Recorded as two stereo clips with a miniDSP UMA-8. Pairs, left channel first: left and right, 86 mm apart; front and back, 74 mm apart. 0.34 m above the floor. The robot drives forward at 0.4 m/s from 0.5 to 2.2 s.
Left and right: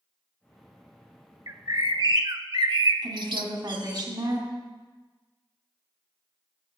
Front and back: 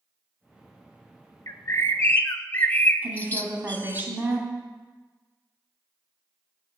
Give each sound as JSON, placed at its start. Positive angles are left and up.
{"t": 1.5, "sound": "a bird", "azimuth_deg": -45, "distance_m": 0.8}
{"t": 3.0, "sound": "a woman speaking", "azimuth_deg": -115, "distance_m": 2.5}